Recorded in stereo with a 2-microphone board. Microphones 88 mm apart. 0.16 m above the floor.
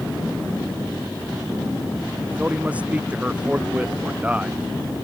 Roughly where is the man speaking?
Centre.